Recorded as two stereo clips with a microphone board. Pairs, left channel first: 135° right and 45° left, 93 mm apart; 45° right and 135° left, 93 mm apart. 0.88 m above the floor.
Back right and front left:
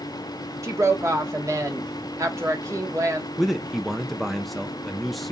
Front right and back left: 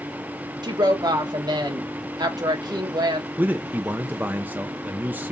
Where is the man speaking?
135° left, 0.5 m.